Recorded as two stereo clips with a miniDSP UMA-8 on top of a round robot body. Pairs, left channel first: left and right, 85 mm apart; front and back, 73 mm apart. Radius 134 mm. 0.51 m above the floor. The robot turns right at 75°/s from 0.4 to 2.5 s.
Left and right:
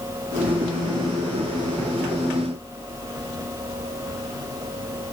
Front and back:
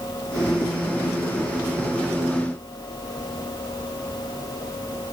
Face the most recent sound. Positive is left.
No sound to turn to.